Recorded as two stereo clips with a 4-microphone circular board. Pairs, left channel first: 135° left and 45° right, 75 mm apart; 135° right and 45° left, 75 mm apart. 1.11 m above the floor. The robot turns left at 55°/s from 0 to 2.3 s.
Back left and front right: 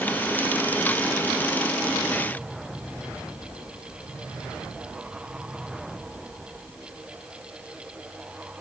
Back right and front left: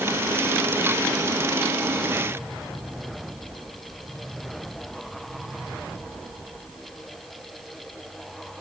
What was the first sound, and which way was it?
Only background noise.